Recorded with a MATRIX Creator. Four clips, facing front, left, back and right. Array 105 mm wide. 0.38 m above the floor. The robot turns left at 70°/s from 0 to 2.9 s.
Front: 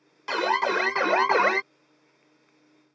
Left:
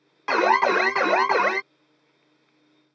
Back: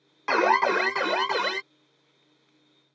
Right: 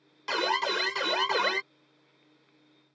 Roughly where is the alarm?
Behind left.